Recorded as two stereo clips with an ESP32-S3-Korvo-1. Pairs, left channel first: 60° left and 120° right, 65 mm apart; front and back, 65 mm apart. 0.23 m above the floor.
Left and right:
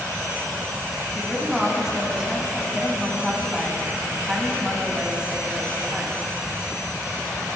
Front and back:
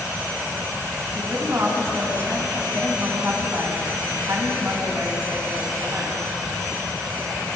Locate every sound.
1.1 s a woman speaking: 165° left, 2 m